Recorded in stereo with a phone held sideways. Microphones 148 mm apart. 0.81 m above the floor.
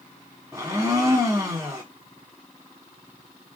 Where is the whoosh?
No whoosh in this recording.